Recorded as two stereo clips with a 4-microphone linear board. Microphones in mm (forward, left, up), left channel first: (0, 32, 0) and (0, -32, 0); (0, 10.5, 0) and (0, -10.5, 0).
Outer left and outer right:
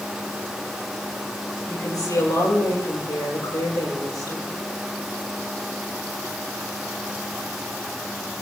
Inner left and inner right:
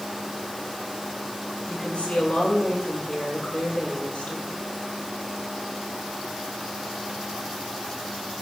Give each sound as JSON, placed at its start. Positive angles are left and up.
{"t": 1.7, "sound": "a woman speaking", "side_deg": 85, "distance_m": 9.5}